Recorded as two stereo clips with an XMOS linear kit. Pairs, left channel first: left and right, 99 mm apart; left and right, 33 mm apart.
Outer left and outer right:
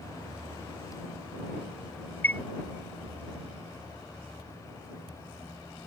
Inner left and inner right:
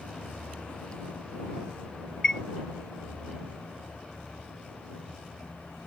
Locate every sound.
2.2 s a chime: 15° left (ahead or behind)